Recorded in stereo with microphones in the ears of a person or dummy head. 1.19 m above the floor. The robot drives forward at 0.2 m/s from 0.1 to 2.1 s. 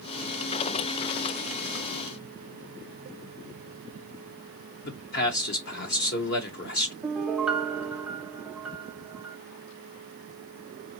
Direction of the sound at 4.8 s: 50° left (ahead or behind).